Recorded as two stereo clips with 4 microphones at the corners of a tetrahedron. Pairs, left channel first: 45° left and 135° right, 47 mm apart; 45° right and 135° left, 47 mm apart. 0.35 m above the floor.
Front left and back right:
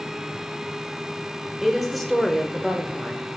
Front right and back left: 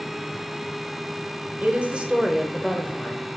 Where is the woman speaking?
140° left, 1.0 m; by 3.4 s 35° right, 1.0 m.